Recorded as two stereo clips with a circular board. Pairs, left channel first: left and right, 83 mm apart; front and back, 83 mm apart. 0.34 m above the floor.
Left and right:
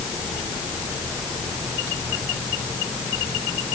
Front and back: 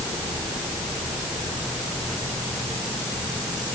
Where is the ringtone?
No ringtone in this recording.